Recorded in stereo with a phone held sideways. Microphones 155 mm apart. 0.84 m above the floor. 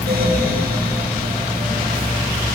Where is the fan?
80° right, 1.4 m.